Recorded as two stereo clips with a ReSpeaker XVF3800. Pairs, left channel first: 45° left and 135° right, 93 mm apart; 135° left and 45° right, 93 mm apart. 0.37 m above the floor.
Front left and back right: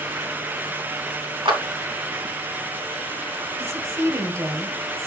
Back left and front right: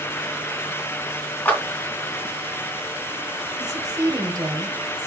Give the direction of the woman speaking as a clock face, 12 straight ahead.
3 o'clock.